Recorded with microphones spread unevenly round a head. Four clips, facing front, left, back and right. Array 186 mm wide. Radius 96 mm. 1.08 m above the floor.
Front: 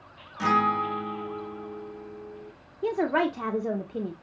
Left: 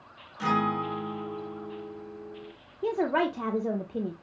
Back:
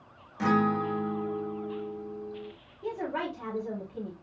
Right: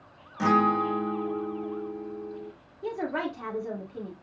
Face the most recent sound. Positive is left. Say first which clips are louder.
# left 5 dB, front 8 dB
turn(degrees=40)